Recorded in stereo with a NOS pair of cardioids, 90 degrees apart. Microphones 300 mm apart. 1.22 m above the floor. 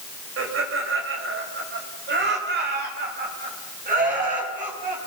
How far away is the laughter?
About 5.5 m.